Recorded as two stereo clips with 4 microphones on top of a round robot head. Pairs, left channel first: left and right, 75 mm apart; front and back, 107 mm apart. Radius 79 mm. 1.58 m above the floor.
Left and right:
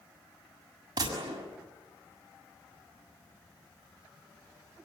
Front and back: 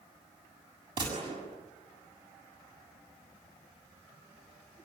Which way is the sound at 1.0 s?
125° right.